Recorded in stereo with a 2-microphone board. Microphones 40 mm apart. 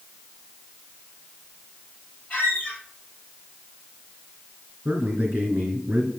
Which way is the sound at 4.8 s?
45° right (ahead or behind).